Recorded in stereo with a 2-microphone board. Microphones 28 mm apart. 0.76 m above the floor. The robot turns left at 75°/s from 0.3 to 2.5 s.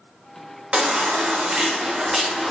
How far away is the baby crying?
About 0.7 m.